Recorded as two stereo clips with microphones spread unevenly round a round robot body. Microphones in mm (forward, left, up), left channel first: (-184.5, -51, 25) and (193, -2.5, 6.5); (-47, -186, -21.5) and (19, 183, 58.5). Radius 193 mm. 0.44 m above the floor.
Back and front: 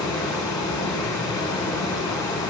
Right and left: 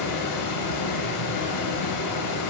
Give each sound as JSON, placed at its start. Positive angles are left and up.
{"t": 0.0, "sound": "running water", "azimuth_deg": -90, "distance_m": 1.1}